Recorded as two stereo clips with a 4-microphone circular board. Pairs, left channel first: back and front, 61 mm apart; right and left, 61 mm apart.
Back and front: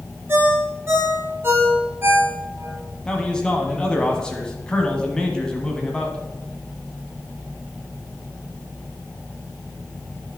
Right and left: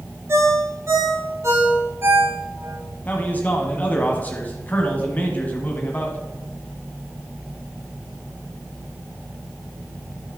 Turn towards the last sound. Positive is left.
turn(degrees=-115)